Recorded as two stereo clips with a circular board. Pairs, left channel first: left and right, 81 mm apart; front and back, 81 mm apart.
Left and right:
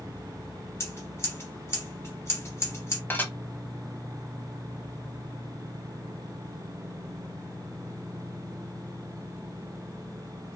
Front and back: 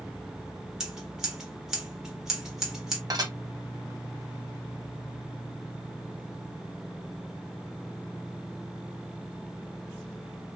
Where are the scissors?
100° left, 1.2 m.